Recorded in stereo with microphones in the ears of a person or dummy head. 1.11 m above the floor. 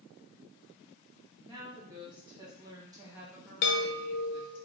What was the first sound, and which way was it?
A woman speaking, 20° right (ahead or behind).